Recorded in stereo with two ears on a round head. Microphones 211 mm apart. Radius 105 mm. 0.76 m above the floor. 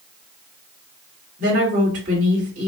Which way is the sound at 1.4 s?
35° right (ahead or behind).